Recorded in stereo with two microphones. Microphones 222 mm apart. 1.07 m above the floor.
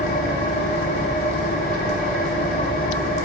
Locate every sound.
0.0 s an engine running: 40° left (ahead or behind), 4.5 m